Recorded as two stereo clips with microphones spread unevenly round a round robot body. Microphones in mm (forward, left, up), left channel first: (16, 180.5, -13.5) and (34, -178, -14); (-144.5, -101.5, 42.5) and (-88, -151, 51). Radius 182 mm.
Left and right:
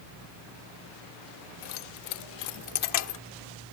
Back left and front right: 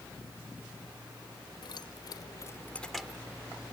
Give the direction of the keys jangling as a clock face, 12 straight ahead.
8 o'clock.